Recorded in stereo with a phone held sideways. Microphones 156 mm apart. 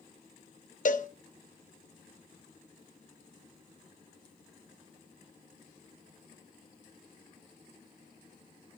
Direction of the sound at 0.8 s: 55° left (ahead or behind).